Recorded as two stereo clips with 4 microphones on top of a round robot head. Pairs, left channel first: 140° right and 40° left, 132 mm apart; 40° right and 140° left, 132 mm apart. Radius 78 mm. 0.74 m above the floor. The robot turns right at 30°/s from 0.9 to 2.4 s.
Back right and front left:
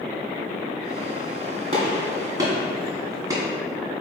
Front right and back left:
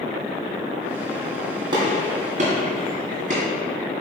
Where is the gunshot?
85° left, 2 m; by 3.4 s 105° left, 2 m.